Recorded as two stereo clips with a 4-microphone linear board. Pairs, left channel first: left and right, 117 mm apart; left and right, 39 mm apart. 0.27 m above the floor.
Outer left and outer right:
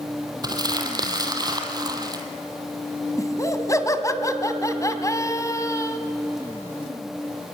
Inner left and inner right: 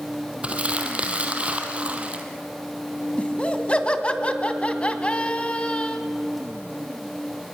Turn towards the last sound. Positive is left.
turn(degrees=30)  # may be behind; listen again after turning